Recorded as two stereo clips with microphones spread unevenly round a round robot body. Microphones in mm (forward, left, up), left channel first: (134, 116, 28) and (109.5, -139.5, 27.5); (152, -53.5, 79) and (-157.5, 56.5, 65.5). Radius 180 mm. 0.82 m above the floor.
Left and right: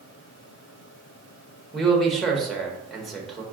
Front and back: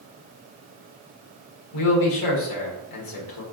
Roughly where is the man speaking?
Ahead.